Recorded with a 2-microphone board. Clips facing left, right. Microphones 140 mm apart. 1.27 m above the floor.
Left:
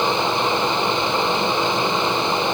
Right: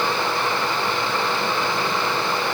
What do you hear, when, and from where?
Only background noise.